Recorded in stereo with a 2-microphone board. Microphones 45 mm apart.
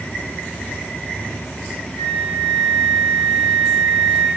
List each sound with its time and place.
2.0 s a flute: 60° left (ahead or behind), 3 m